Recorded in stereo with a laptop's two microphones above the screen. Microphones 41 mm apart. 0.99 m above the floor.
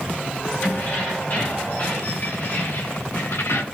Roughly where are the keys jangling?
Left.